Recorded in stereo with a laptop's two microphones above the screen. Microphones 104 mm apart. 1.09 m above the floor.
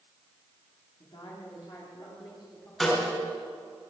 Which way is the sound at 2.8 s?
5° left (ahead or behind).